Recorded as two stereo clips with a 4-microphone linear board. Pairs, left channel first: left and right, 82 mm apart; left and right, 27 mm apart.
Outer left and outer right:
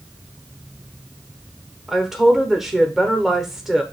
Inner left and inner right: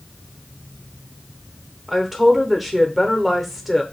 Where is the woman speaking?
5° right (ahead or behind), 0.8 m.